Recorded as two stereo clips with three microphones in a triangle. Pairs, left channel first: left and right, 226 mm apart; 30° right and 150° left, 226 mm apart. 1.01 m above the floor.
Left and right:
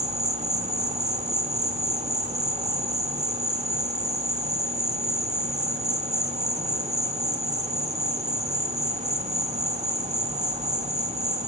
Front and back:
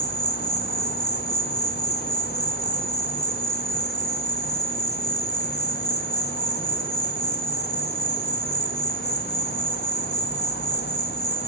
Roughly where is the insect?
Ahead right.